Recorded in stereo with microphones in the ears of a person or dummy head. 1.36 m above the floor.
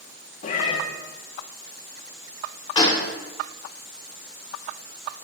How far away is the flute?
No flute in this recording.